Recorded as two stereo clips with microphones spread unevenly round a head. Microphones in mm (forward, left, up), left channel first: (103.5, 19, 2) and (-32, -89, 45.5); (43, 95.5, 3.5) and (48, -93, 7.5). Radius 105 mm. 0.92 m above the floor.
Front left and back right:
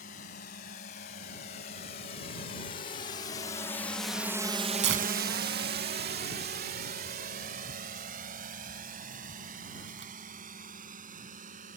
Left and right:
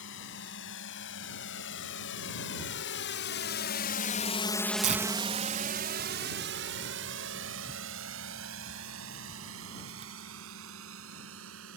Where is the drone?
85° left; by 11.8 s 105° right.